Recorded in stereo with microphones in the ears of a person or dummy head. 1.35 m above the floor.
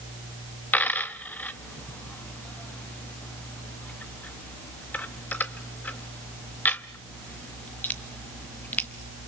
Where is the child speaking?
I don't hear a child speaking.